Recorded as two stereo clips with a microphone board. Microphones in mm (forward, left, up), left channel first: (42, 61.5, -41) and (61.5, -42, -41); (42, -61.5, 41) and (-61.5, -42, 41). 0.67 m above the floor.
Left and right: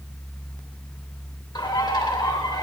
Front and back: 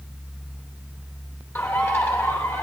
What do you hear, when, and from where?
1.6 s a bird: 55° left, 3 m